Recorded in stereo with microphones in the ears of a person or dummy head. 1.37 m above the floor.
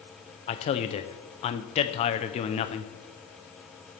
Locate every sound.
0.5 s a man speaking: 35° left (ahead or behind), 0.6 m